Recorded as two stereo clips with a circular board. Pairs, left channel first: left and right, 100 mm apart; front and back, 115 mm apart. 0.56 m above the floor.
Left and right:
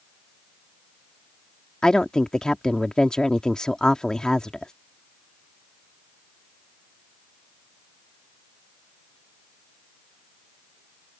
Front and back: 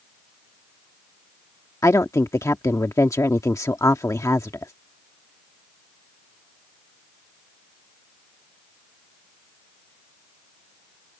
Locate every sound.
1.8 s a woman speaking: 15° left